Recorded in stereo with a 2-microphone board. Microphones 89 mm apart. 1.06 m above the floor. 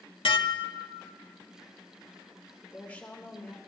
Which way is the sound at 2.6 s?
20° left (ahead or behind).